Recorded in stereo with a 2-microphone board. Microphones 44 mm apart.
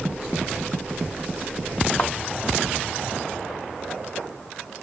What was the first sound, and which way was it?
A thud, 25° left (ahead or behind).